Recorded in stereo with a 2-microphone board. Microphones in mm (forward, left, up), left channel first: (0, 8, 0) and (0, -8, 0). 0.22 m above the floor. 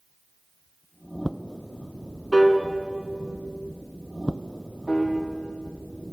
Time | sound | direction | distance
2.3 | a piano | 5° left (ahead or behind) | 2 m
4.9 | a piano | 70° left (ahead or behind) | 3.5 m